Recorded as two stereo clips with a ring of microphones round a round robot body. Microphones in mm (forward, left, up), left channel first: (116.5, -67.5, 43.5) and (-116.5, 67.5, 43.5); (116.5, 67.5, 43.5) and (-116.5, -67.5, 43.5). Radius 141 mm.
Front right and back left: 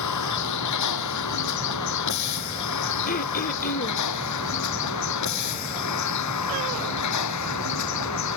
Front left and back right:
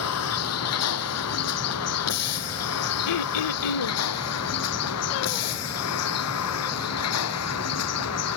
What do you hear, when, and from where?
0.0 s a vehicle: 5° right
3.1 s throat clearing: 30° left